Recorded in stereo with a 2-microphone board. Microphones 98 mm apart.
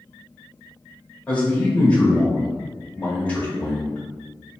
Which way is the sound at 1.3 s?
15° left (ahead or behind).